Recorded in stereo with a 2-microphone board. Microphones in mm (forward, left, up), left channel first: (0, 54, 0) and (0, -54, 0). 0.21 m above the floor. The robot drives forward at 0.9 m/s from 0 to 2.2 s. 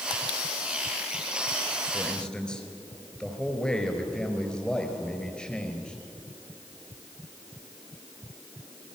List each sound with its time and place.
1.9 s a man speaking: 5° left (ahead or behind), 3.5 m; by 6.0 s 10° left (ahead or behind), 3.5 m